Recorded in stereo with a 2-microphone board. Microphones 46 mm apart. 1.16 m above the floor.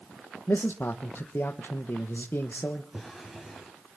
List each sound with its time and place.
0.5 s a man speaking: 60° left (ahead or behind), 1.4 m
2.9 s a drawer: 10° right (ahead or behind), 5 m